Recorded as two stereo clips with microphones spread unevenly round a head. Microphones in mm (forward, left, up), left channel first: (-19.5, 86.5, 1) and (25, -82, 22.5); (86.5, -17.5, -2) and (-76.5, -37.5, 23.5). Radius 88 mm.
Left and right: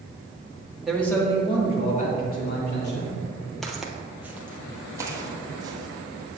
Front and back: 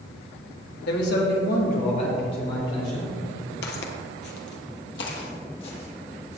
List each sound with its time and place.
0.9 s a man speaking: 20° left, 2 m; by 3.2 s 80° left, 4 m
3.6 s footsteps: 10° left, 1.4 m; by 6.4 s 15° right, 2.5 m